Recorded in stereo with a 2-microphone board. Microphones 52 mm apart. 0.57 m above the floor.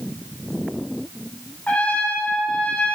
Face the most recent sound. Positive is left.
turn(degrees=30)  # may be behind; listen again after turning